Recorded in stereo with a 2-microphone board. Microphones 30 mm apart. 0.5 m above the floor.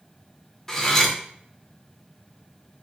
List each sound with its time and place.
0.7 s cutlery clinking: 15° left (ahead or behind), 0.6 m